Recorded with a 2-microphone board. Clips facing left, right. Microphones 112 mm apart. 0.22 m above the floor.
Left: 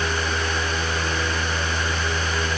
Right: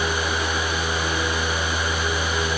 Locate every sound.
Only background noise.